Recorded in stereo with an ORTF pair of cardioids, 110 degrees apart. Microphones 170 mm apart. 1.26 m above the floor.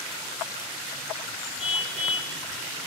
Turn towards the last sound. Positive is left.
turn(degrees=-5)